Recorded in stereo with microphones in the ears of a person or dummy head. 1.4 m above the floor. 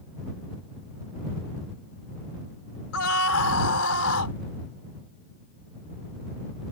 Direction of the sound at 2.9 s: 85° left.